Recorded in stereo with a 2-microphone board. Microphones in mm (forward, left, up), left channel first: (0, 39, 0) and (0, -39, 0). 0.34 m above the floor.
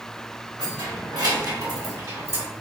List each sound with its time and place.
0.6 s keys jangling: 65° right (ahead or behind), 2.0 m; by 2.5 s 30° right (ahead or behind), 0.9 m